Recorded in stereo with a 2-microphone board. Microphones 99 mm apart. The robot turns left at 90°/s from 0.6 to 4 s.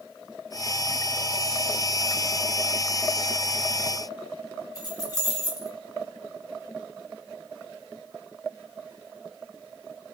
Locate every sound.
4.8 s keys jangling: 35° left (ahead or behind), 1.4 m